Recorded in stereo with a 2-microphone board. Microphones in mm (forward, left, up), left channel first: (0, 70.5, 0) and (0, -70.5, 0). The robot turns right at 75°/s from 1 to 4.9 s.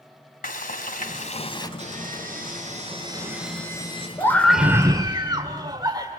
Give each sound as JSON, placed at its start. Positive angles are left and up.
{"t": 0.4, "sound": "frying", "azimuth_deg": 100, "distance_m": 1.9}
{"t": 1.8, "sound": "sawing", "azimuth_deg": -130, "distance_m": 7.5}
{"t": 4.2, "sound": "a scream", "azimuth_deg": 155, "distance_m": 1.9}